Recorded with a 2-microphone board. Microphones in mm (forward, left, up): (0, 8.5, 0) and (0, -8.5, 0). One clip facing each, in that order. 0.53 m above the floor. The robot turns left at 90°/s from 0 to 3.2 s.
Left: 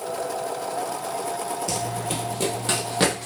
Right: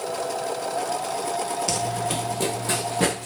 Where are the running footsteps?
30° right (ahead or behind), 0.7 m; by 3.3 s 70° left (ahead or behind), 1.6 m.